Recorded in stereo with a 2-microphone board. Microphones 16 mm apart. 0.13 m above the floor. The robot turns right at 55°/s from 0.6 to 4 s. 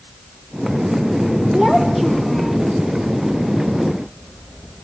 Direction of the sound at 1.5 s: 50° right.